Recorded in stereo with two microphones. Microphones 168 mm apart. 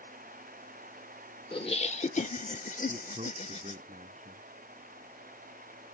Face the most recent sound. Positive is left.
turn(degrees=-45)  # may be behind; listen again after turning